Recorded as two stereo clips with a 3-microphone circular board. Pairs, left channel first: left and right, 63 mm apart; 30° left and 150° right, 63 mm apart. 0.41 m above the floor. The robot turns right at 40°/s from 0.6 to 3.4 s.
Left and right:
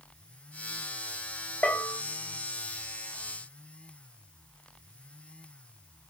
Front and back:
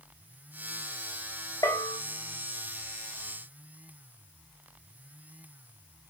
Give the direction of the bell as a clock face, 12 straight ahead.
11 o'clock.